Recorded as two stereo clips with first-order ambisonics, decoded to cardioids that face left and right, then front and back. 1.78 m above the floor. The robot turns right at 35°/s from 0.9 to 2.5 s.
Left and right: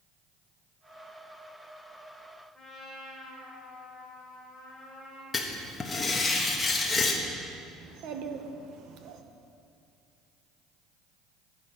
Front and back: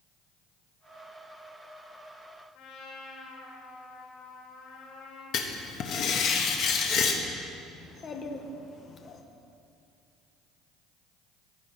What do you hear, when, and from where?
2.5 s a trumpet: 15° right, 4.5 m
5.3 s writing: 20° left, 1.2 m
7.8 s a child speaking: 60° right, 1.1 m